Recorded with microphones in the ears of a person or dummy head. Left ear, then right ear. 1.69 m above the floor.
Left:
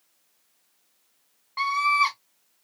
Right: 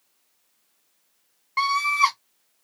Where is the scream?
80° right, 1.1 m.